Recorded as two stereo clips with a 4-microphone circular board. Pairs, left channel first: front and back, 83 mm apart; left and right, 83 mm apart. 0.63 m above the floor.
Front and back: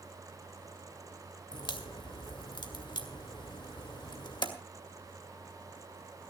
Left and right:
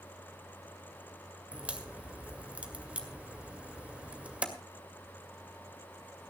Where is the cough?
I don't hear a cough.